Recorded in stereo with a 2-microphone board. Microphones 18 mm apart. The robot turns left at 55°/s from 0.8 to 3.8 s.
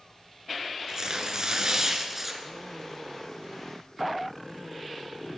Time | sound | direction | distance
0.9 | tearing paper | 75° right | 2 m